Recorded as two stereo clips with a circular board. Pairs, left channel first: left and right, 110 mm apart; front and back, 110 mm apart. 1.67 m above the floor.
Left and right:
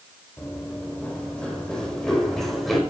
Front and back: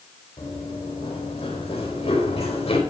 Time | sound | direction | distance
0.4 | running footsteps | 20° left | 4 m